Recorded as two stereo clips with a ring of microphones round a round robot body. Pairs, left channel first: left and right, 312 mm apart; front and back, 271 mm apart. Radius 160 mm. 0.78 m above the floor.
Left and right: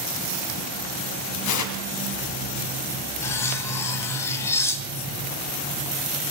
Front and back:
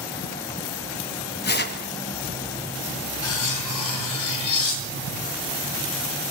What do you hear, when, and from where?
1.4 s tearing paper: 55° left, 2 m
3.2 s cutlery clinking: 5° left, 3 m